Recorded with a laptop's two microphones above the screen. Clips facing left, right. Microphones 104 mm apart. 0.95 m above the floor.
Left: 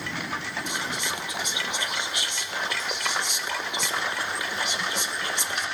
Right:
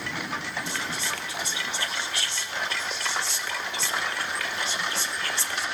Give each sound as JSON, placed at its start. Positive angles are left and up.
{"t": 0.7, "sound": "whispering", "side_deg": 15, "distance_m": 0.7}